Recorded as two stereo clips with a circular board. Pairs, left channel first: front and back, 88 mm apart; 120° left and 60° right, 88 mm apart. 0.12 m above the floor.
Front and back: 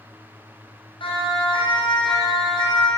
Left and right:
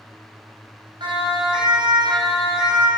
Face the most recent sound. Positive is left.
turn(degrees=-20)